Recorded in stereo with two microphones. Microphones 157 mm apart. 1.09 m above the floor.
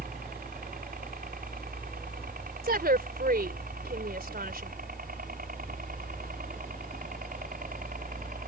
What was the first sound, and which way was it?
A helicopter, 70° right (ahead or behind).